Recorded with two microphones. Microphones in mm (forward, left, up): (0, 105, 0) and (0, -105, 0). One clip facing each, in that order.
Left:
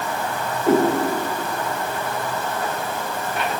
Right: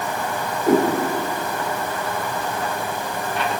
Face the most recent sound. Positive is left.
turn(degrees=0)  # may be behind; listen again after turning